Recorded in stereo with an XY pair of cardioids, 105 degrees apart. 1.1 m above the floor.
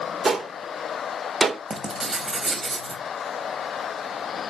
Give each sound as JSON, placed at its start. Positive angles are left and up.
{"t": 0.2, "sound": "a gunshot", "azimuth_deg": -35, "distance_m": 1.7}
{"t": 1.7, "sound": "writing", "azimuth_deg": -35, "distance_m": 3.5}